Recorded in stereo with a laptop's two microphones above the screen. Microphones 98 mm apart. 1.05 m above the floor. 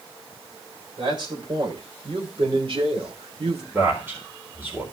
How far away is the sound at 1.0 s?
About 4 m.